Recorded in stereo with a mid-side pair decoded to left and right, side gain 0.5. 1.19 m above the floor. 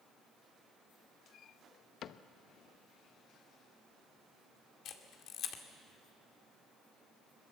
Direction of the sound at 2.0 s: 55° left.